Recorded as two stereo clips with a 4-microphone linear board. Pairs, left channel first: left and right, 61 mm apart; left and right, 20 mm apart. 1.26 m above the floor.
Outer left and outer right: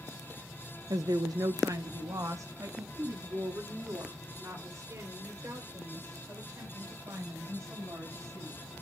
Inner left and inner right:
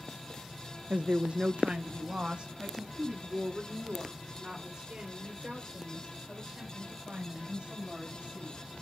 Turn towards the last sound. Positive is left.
turn(degrees=-50)  # may be behind; listen again after turning